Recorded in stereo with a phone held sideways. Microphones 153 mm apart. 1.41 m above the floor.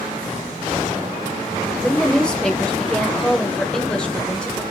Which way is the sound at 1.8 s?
5° left (ahead or behind).